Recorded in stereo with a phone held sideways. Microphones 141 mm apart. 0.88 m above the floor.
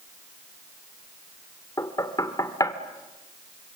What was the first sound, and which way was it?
Knocking, 25° left (ahead or behind).